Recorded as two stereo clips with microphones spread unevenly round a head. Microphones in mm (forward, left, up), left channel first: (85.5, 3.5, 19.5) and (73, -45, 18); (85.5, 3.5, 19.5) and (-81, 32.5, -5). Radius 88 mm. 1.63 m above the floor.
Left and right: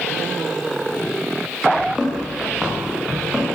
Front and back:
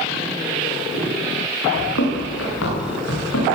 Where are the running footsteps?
25° right, 9 m; by 3.5 s 20° right, 10.5 m.